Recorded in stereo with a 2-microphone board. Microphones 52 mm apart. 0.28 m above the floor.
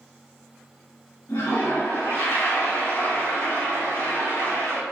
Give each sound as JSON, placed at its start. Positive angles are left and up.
{"t": 1.3, "sound": "a toilet flushing", "side_deg": 65, "distance_m": 1.9}